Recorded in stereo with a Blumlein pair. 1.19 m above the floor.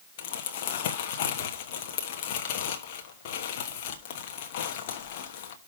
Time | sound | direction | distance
0.2 | crumpling | 50° left | 1.1 m